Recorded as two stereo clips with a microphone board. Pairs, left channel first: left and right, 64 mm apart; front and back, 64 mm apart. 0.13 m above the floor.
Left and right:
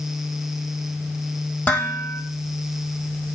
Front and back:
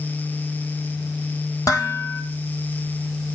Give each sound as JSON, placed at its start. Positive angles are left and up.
{"t": 1.7, "sound": "dishes clattering", "azimuth_deg": 25, "distance_m": 3.0}